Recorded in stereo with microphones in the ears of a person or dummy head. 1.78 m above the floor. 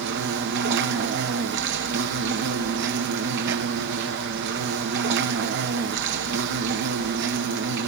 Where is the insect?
65° right (ahead or behind), 1.5 m.